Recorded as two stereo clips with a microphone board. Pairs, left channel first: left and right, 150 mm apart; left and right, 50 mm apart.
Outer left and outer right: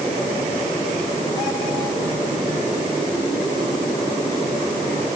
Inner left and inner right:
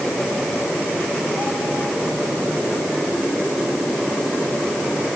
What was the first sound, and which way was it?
Only background noise.